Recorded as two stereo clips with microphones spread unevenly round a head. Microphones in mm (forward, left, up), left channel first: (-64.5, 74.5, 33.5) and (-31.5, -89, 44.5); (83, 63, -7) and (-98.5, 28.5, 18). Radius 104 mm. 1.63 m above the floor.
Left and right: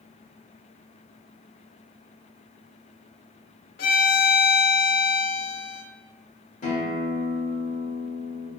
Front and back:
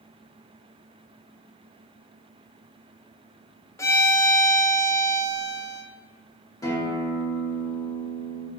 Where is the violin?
90° left, 0.5 m.